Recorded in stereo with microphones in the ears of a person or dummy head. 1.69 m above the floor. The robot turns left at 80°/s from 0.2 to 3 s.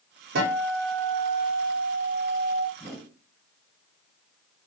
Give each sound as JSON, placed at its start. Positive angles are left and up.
{"t": 0.3, "sound": "a guitar", "azimuth_deg": -65, "distance_m": 1.4}
{"t": 2.8, "sound": "a whoosh", "side_deg": -25, "distance_m": 0.9}